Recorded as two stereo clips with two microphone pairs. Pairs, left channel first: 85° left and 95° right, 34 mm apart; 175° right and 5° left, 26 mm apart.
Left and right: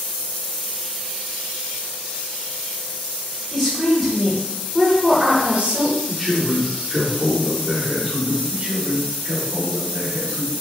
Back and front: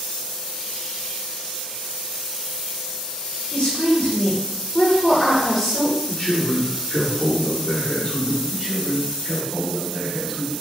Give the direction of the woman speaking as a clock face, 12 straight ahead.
7 o'clock.